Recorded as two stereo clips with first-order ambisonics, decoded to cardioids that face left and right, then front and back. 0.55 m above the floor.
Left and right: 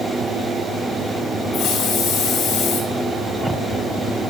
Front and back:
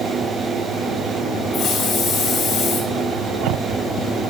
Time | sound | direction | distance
1.5 | a hiss | 50° left | 2.5 m